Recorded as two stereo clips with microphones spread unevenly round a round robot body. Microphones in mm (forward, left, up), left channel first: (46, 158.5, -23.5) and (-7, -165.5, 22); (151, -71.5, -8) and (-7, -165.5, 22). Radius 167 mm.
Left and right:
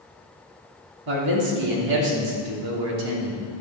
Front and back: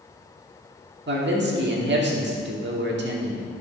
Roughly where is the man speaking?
Behind right.